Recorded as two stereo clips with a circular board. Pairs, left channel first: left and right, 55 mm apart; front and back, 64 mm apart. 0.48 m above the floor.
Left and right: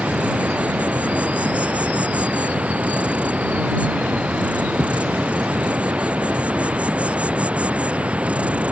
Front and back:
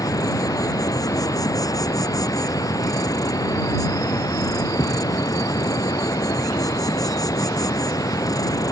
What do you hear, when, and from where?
0.0 s an insect: 25° right